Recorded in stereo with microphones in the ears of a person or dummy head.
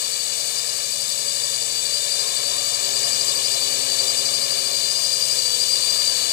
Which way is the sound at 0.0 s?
65° left (ahead or behind).